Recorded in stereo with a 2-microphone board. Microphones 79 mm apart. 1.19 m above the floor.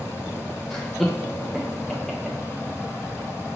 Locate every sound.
0.7 s laughter: 5° left (ahead or behind), 0.5 m